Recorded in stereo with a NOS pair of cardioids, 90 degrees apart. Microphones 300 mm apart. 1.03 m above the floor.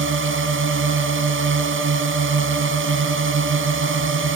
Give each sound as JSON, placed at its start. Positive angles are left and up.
{"t": 0.0, "sound": "a drone", "azimuth_deg": -40}